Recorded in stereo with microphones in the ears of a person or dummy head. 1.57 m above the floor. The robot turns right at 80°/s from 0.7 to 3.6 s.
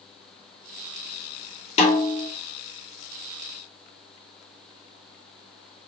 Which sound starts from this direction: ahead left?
A snare drum, at 1.8 s.